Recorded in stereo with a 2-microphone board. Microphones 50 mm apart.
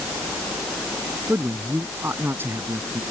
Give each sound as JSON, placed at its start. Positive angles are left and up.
{"t": 1.3, "sound": "a man speaking", "side_deg": -50}